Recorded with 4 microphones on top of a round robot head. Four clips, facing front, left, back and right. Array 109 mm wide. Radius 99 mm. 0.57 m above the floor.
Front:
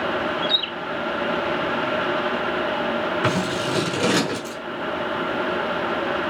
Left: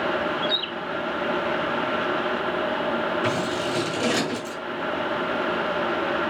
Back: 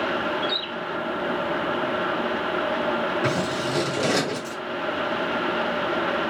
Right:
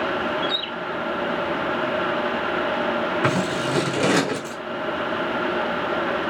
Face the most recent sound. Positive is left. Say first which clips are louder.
# right 2 dB, front 2 dB
turn(degrees=-65)